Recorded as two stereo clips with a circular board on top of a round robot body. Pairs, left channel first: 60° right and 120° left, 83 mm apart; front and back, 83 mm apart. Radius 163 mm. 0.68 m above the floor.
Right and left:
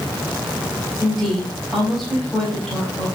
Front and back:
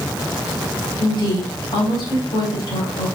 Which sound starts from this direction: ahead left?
A woman speaking, at 1.0 s.